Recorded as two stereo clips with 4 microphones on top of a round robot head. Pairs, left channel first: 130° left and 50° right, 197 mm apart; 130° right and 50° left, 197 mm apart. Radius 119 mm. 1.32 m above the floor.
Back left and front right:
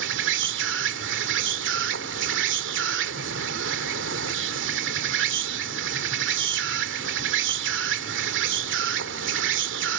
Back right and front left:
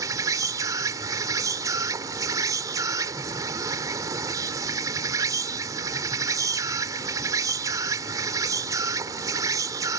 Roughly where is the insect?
Ahead.